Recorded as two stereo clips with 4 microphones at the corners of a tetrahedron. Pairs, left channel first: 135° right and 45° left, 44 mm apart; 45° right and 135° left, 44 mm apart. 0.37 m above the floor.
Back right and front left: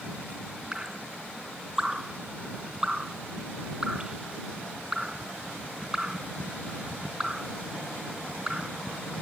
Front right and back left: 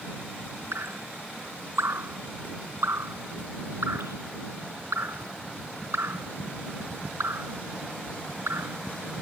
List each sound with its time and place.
0.7 s dripping: 120° left